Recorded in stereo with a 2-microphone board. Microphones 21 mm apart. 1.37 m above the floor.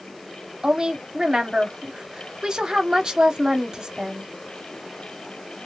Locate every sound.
0.6 s a woman speaking: 35° right (ahead or behind), 0.7 m